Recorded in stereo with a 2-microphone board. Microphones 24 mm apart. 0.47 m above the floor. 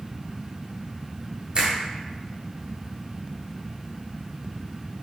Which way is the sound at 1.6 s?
40° right (ahead or behind).